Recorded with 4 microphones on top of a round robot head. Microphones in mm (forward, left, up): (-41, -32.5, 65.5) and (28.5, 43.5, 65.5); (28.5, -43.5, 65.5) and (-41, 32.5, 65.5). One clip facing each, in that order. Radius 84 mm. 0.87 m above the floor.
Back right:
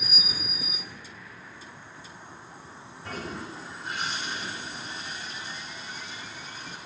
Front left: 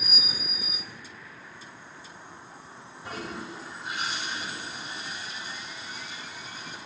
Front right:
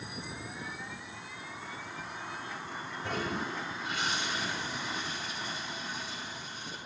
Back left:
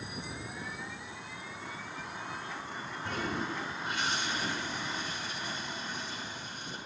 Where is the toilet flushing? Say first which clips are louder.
Even, even; 30° right, 8 m.